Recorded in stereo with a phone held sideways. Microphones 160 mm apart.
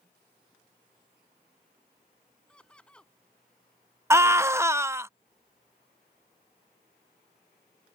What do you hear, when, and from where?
2.5 s laughter: 5° left (ahead or behind)
4.1 s a scream: 15° right (ahead or behind)